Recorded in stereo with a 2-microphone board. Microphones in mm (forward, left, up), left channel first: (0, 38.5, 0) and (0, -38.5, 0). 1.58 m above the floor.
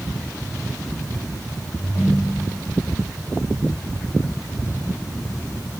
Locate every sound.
1.8 s a ringtone: 45° left (ahead or behind), 3.5 m